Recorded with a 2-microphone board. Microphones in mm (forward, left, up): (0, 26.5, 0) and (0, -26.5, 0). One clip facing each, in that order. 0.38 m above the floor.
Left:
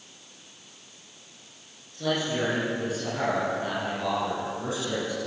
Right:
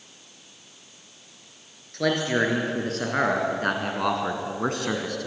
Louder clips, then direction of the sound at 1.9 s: Right 4 dB; 70° right (ahead or behind).